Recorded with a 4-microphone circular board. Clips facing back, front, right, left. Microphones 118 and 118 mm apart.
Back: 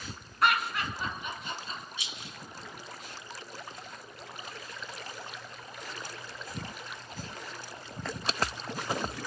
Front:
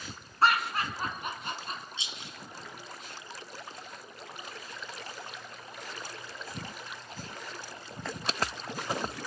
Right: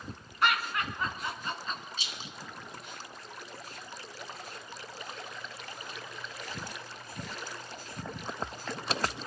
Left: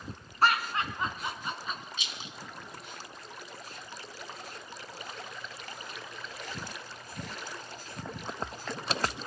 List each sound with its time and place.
0.4 s laughter: 50° left, 2.5 m; by 1.8 s 5° left, 3 m
2.0 s a rattle: 55° right, 1.7 m